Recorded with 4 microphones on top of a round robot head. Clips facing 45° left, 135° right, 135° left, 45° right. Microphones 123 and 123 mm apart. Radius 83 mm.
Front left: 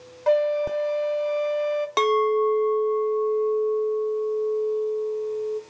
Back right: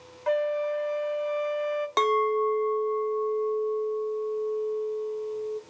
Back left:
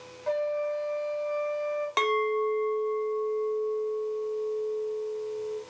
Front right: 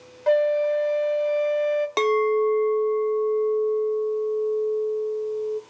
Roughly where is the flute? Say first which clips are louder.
Front left 5 dB, front right 9 dB; ahead.